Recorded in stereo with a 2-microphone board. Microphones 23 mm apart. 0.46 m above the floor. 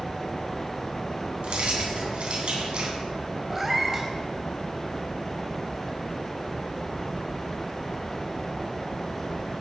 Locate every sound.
1.4 s keys jangling: 55° right (ahead or behind), 3 m
3.5 s a cat meowing: 10° right (ahead or behind), 1.3 m